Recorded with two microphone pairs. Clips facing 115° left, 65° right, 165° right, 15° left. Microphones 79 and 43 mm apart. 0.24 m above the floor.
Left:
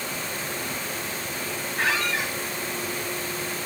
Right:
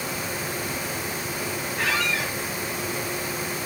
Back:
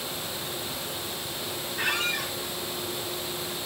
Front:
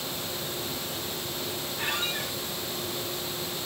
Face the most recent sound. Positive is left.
turn(degrees=165)